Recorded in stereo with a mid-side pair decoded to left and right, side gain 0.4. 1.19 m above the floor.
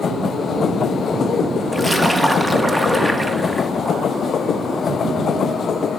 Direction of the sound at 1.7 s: 5° right.